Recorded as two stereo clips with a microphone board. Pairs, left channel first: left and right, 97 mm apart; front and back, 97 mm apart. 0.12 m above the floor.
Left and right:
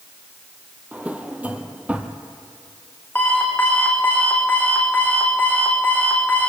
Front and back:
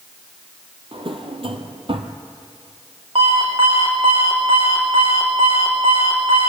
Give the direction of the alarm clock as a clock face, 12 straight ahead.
7 o'clock.